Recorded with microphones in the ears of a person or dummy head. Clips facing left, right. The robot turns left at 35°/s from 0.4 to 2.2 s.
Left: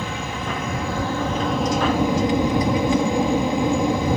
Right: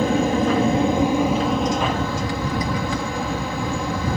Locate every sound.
0.0 s an aircraft: 135° right; by 4.2 s 160° left